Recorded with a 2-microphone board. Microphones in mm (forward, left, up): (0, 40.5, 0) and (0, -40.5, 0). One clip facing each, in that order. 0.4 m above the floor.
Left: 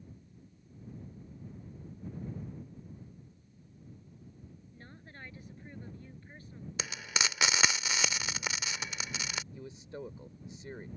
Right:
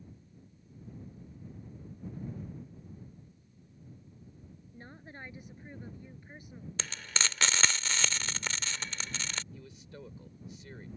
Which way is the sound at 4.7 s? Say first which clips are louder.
Right 5 dB; 25° right (ahead or behind).